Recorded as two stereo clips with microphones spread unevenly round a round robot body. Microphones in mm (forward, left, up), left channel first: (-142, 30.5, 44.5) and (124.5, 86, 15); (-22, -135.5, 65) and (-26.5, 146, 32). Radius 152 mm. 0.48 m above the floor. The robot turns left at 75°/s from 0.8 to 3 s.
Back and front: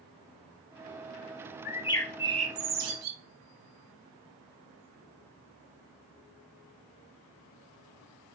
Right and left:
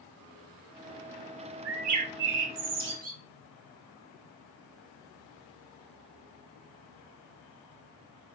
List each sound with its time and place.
1.6 s a bird: 135° left, 0.6 m; by 3.2 s 30° left, 0.6 m